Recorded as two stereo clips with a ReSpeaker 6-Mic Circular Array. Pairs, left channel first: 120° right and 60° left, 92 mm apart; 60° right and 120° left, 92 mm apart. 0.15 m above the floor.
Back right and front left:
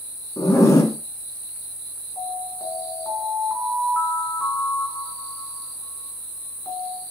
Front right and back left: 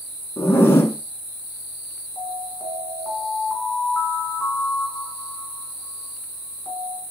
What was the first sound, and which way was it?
A zipper, 100° right.